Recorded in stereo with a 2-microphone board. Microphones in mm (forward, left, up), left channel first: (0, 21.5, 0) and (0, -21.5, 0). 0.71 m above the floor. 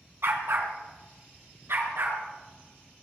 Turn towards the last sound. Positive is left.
turn(degrees=-70)  # may be behind; listen again after turning